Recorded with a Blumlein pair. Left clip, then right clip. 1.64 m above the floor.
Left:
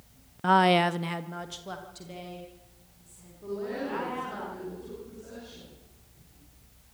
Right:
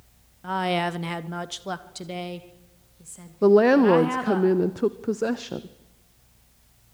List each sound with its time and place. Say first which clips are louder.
0.4 s a woman speaking: left 4 dB; 30° left, 0.5 m; by 4.4 s 40° right, 3.5 m
3.4 s a woman speaking: right 18 dB; 45° right, 0.7 m